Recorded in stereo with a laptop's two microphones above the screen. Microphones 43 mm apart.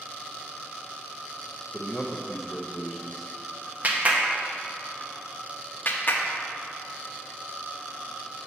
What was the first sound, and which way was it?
A man speaking, centre (ahead or behind).